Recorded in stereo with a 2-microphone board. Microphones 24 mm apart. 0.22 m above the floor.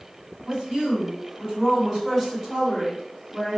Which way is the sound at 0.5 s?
35° right (ahead or behind).